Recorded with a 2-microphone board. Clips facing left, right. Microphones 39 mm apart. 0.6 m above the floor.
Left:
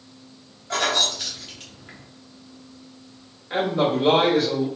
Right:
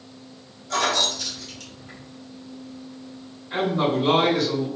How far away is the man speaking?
About 1.5 m.